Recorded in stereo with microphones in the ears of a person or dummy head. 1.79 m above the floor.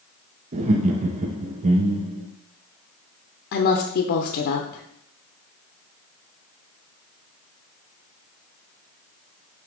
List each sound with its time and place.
0.5 s laughter: 45° right (ahead or behind), 0.6 m
3.5 s a woman speaking: 50° left (ahead or behind), 0.8 m